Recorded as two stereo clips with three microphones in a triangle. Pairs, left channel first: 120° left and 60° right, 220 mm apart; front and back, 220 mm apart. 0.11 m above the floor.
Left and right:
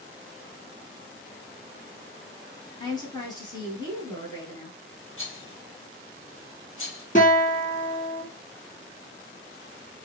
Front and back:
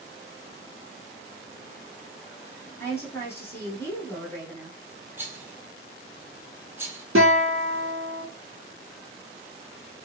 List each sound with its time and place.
2.8 s a woman speaking: 70° left, 1.2 m
5.2 s a rattle: 100° left, 0.8 m
7.2 s a guitar: 170° left, 0.9 m